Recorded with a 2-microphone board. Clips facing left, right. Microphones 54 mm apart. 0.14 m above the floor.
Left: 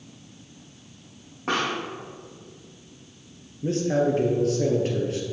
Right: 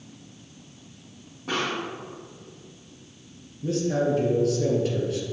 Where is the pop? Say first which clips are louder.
Left 2 dB; 70° left (ahead or behind), 3.5 m.